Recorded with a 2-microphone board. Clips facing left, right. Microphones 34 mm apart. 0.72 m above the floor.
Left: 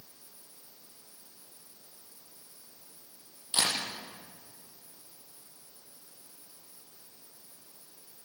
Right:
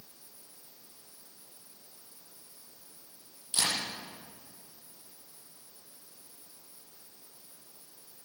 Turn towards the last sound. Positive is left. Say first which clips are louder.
# left 1 dB
turn(degrees=40)  # may be behind; listen again after turning